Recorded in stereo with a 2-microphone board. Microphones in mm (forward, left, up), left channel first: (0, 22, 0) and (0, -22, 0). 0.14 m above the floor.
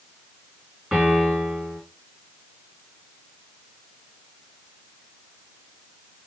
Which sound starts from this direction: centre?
A piano, at 0.9 s.